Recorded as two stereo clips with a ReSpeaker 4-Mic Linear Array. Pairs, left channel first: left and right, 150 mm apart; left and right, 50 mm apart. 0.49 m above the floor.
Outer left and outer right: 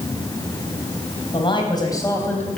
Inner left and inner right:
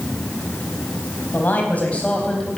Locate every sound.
1.3 s a man speaking: 35° left (ahead or behind), 4 m; by 2.6 s 5° left (ahead or behind), 3.5 m